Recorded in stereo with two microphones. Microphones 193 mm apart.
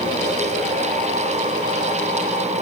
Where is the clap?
I don't hear a clap.